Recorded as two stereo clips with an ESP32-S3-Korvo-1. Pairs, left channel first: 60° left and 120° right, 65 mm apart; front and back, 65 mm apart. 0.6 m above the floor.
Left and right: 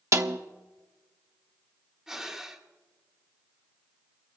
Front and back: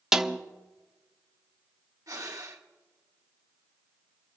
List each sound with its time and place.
0.1 s a snare drum: 100° right, 0.7 m
2.1 s breathing: 155° left, 1.5 m